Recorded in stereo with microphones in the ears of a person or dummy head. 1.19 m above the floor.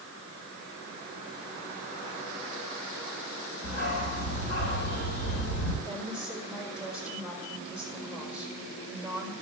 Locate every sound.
3.6 s a dog barking: 60° left (ahead or behind), 5.5 m
5.8 s a woman speaking: 20° left (ahead or behind), 4.5 m